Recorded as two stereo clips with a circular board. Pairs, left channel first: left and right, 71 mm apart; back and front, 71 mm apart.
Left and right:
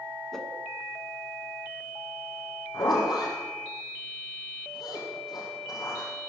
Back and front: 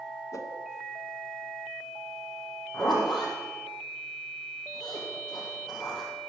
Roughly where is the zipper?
Left.